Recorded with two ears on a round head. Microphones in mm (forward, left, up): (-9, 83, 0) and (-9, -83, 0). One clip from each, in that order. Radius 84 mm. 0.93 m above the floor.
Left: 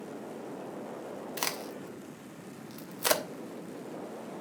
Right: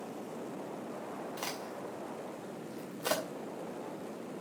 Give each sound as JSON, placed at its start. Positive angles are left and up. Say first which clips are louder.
{"t": 1.4, "sound": "a crack", "louder": "left 8 dB", "side_deg": 45, "distance_m": 1.2}